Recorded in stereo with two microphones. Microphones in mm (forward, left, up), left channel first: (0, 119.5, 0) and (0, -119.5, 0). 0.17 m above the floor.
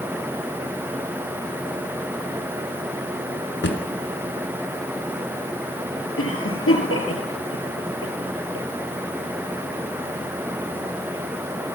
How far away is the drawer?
About 1.5 m.